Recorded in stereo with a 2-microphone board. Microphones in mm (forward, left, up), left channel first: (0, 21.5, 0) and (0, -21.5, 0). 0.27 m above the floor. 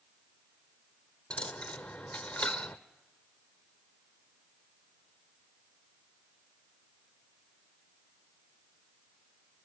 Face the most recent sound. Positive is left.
turn(degrees=25)  # may be behind; listen again after turning